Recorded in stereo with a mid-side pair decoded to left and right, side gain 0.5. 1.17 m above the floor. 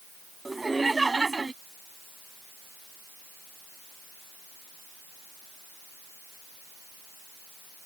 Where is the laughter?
15° right; by 1.5 s 25° right.